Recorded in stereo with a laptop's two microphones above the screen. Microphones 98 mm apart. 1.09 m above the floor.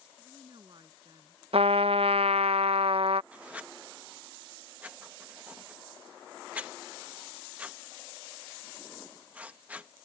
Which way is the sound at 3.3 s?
15° right (ahead or behind).